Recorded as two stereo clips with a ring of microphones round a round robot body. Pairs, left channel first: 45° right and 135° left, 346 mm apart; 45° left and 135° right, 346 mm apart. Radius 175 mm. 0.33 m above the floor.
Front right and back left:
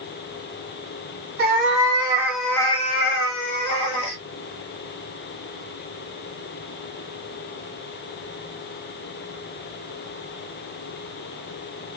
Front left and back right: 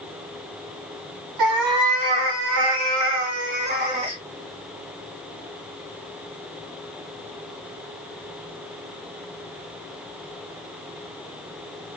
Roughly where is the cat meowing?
Behind.